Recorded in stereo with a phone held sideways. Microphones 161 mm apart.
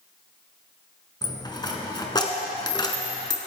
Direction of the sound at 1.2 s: 25° left (ahead or behind).